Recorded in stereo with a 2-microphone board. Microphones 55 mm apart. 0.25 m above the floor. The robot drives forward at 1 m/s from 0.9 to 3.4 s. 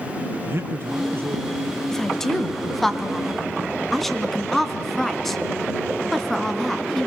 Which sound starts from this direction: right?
A man speaking, at 0.5 s.